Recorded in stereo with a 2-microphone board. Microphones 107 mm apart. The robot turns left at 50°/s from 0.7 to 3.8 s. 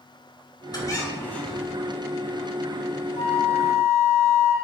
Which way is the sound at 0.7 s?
45° left.